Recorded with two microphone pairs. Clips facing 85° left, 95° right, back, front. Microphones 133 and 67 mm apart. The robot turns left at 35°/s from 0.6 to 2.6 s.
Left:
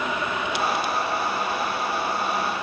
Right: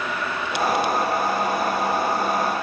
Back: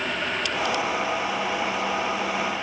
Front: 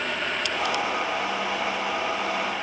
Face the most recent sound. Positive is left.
No sound to turn to.